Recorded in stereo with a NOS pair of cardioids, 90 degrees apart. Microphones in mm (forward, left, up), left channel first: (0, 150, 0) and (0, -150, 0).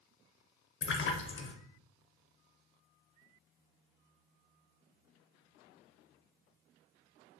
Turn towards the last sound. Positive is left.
turn(degrees=40)